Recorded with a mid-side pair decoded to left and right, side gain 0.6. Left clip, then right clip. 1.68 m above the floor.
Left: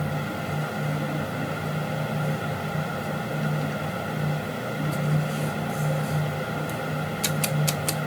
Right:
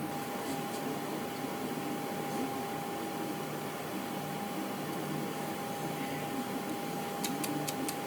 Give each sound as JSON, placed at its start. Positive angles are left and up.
{"t": 0.0, "sound": "a fan", "azimuth_deg": 70}